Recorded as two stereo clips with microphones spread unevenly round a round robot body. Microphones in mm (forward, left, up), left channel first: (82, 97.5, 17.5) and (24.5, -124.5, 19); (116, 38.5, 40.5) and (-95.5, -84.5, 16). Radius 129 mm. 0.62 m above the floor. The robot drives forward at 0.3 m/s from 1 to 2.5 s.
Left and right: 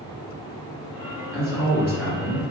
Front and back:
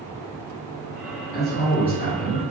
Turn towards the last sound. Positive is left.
turn(degrees=120)